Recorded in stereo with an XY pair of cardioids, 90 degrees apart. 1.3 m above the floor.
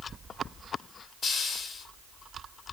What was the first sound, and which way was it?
A hiss, 60° left.